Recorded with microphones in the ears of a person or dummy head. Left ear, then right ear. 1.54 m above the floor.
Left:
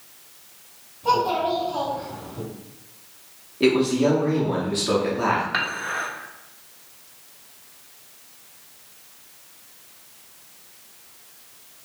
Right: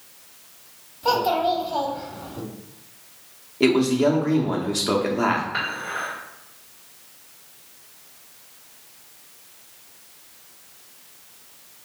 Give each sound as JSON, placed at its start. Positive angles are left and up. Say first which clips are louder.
{"t": 1.0, "sound": "a child speaking", "louder": "even", "side_deg": -45, "distance_m": 1.2}
{"t": 3.6, "sound": "a man speaking", "louder": "right 1 dB", "side_deg": -25, "distance_m": 0.7}
{"t": 5.5, "sound": "dishes clattering", "louder": "left 2 dB", "side_deg": 70, "distance_m": 1.5}